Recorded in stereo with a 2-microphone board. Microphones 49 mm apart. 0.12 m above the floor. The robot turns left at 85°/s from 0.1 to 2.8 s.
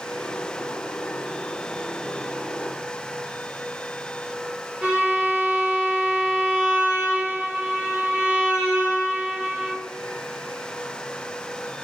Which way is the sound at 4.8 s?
25° right (ahead or behind).